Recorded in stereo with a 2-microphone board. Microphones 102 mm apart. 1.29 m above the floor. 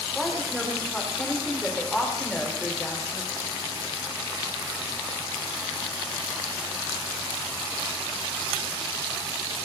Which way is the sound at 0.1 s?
5° left (ahead or behind).